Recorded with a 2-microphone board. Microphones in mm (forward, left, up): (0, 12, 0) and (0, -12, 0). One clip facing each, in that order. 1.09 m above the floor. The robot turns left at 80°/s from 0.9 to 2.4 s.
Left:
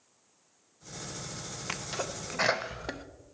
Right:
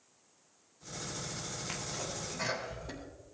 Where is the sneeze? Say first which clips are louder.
Left 6 dB; 30° left (ahead or behind), 0.7 m; by 3.0 s 65° left (ahead or behind), 0.7 m.